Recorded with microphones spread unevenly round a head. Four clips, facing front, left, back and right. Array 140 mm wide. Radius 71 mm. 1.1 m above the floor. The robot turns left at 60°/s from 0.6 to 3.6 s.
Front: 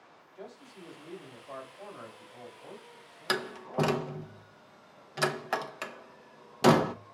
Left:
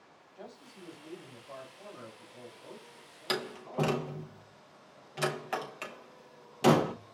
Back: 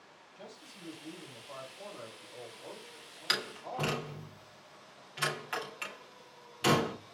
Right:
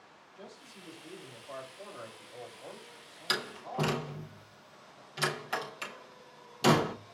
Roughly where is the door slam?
Ahead.